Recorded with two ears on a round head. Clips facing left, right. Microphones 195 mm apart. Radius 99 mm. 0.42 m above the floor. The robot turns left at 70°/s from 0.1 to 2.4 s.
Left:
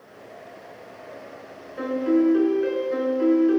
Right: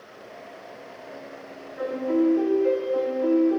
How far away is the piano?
About 6.5 m.